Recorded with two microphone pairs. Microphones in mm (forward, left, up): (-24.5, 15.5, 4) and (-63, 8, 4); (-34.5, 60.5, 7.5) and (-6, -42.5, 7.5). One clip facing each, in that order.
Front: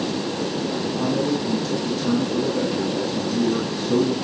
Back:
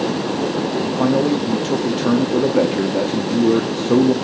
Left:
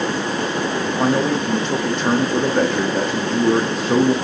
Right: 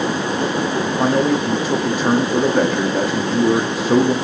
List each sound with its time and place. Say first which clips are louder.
1.0 s a man speaking: back 6 dB, right 2 dB; 160° right, 1.3 m